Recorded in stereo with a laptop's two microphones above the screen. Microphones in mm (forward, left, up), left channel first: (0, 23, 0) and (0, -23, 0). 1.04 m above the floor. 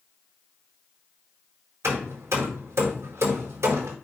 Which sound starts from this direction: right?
Hammering, at 1.8 s.